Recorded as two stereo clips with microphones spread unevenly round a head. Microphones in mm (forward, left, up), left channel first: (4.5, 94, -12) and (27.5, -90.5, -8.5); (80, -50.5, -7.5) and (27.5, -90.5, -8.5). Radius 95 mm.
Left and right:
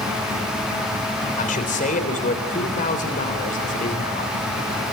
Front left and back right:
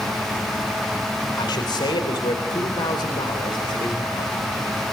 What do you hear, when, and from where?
1.4 s a man speaking: 50° left, 3.5 m